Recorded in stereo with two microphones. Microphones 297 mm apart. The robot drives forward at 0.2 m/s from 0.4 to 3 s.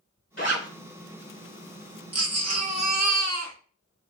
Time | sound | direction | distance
0.4 | a zipper | 40° left (ahead or behind) | 1.3 m
2.1 | a baby crying | 55° right (ahead or behind) | 0.6 m